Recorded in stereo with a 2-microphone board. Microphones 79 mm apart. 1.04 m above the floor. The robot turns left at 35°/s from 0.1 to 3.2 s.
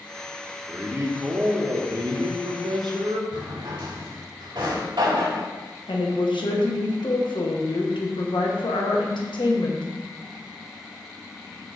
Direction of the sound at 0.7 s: 20° right.